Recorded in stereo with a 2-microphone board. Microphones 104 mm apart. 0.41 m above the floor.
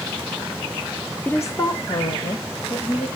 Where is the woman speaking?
15° left (ahead or behind), 0.9 m; by 3.1 s 65° left (ahead or behind), 2.5 m.